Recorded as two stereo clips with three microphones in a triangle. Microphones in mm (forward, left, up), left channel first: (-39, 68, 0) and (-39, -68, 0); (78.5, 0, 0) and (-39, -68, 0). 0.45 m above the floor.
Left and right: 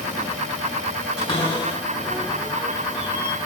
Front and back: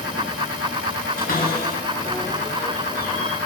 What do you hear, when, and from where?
1.2 s a cupboard door: 40° left, 2.5 m